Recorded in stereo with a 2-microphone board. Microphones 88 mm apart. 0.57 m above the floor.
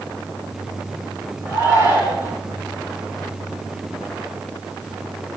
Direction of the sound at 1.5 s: 25° right (ahead or behind).